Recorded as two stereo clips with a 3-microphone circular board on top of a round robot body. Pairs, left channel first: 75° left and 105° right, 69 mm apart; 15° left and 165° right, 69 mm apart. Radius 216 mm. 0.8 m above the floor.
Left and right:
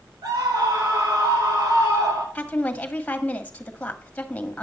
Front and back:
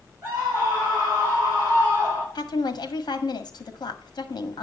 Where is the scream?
110° right, 6.5 m.